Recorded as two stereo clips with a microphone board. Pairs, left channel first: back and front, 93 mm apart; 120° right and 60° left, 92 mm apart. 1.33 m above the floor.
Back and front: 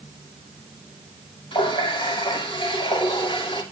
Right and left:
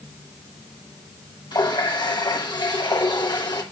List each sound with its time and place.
1.5 s a running tap: 155° right, 2.5 m